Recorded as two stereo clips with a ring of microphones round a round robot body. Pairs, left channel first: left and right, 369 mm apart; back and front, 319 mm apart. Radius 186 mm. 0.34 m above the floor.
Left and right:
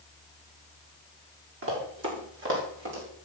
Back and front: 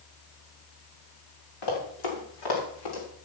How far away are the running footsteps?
About 6 m.